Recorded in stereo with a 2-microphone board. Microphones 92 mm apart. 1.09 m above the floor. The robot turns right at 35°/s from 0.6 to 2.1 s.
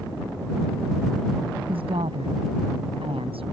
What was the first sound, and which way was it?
A woman speaking, 75° right (ahead or behind).